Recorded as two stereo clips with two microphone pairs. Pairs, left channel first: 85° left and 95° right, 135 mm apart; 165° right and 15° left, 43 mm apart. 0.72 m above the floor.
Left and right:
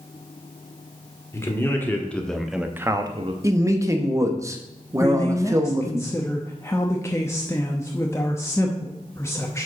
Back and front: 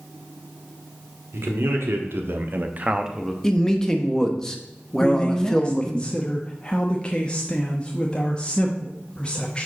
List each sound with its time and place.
1.3 s a man speaking: 20° left, 2.0 m; by 3.3 s 80° right, 0.8 m
3.4 s a man speaking: 120° right, 0.9 m
5.0 s a man speaking: 145° left, 0.8 m